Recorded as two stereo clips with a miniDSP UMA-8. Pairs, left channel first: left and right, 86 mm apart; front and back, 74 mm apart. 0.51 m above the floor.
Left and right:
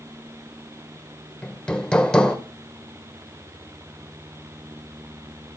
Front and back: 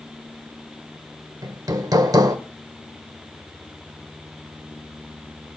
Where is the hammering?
165° left, 1.7 m.